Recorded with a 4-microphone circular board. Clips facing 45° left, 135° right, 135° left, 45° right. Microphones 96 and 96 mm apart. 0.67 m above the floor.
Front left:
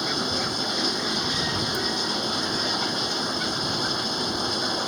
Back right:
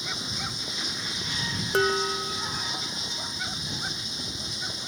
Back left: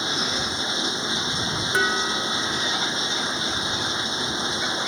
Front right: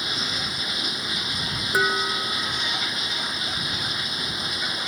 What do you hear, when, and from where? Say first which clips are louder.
0.0 s running water: front left 9 dB, back left 4 dB; 70° left
1.7 s dishes clattering: back right 3 dB, front right 1 dB; 125° right